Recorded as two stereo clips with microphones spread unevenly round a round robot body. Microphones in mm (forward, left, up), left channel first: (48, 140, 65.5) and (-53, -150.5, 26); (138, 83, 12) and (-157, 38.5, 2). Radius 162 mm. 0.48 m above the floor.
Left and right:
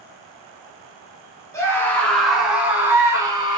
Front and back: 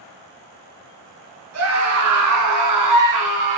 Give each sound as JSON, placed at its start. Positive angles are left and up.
{"t": 1.5, "sound": "a scream", "azimuth_deg": 155, "distance_m": 4.5}